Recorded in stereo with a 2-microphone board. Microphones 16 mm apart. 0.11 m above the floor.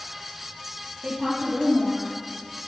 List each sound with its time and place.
1.0 s a woman speaking: 55° right (ahead or behind), 3 m; by 2.2 s 50° right (ahead or behind), 3 m